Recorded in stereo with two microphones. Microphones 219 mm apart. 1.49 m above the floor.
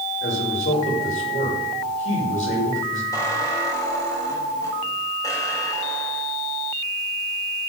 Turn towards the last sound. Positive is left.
turn(degrees=15)  # may be behind; listen again after turning